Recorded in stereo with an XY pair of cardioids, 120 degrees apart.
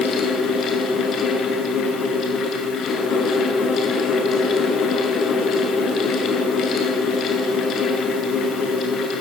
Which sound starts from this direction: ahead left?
A fan, at 0.0 s.